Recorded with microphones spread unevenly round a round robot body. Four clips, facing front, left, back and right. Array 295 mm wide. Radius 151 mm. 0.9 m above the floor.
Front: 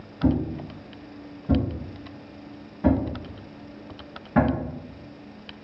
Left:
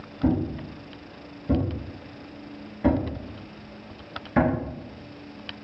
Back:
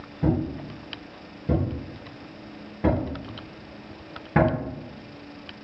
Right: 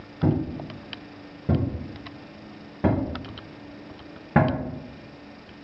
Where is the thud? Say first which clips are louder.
Even, front 1 dB; 115° right, 3 m.